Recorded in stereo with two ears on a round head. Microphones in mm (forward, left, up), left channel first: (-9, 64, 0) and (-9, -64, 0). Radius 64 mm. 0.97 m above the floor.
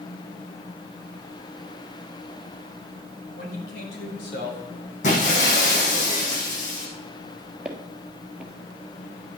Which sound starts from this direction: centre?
Footsteps, at 7.7 s.